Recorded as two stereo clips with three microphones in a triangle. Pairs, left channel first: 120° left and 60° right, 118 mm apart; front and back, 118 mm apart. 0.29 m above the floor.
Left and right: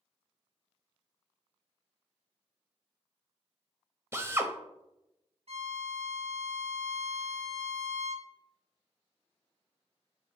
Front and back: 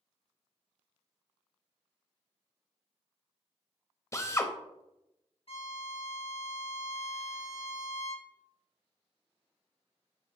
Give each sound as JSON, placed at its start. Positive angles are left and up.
{"t": 4.1, "sound": "a drill", "azimuth_deg": -20, "distance_m": 0.5}
{"t": 5.5, "sound": "a violin", "azimuth_deg": -35, "distance_m": 0.6}